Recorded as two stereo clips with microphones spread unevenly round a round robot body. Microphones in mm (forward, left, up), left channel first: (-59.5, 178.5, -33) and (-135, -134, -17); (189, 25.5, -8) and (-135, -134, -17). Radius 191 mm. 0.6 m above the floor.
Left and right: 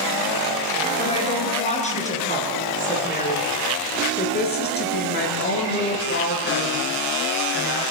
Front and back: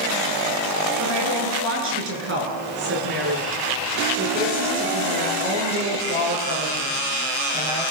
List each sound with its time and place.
1.0 s a woman speaking: 150° left, 9.5 m; by 7.8 s 125° left, 10 m